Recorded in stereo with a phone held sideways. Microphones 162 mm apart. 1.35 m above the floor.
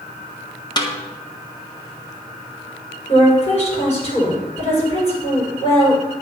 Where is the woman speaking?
40° left (ahead or behind), 6.5 m.